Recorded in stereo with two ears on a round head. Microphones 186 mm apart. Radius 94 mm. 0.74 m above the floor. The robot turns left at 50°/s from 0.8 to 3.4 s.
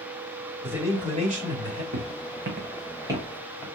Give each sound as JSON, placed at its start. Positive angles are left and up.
{"t": 0.6, "sound": "a man speaking", "azimuth_deg": -10, "distance_m": 3.0}
{"t": 1.9, "sound": "footsteps", "side_deg": -70, "distance_m": 2.5}